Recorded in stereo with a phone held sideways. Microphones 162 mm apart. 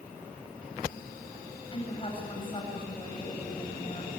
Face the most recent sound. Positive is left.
turn(degrees=35)  # may be behind; listen again after turning